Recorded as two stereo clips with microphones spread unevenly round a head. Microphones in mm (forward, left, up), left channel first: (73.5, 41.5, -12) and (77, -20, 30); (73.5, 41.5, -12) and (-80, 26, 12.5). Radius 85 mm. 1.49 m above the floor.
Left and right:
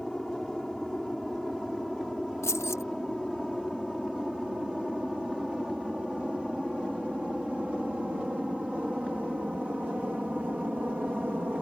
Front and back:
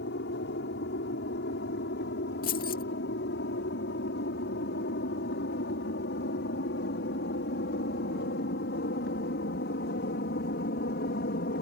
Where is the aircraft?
10° left; by 11.6 s 10° right.